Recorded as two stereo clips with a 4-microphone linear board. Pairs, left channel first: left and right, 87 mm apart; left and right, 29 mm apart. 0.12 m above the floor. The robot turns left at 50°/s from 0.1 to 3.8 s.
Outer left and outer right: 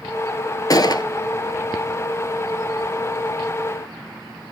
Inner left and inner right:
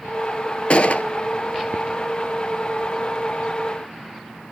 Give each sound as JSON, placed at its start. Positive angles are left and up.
{"t": 0.7, "sound": "a gunshot", "side_deg": 45, "distance_m": 0.7}